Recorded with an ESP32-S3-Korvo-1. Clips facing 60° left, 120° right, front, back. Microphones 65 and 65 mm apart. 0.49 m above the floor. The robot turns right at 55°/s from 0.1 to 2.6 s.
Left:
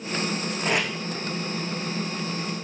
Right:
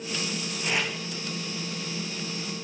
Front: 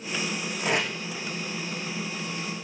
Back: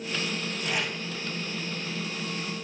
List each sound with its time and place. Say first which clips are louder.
0.6 s tape being pulled: left 3 dB, front 5 dB; 15° left, 5.5 m; by 0.9 s 30° left, 5.5 m